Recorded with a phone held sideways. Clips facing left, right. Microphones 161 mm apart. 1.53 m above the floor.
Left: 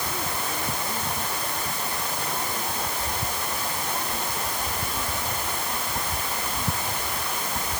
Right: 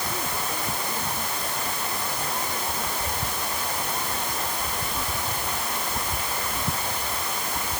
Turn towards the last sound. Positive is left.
No sound to turn to.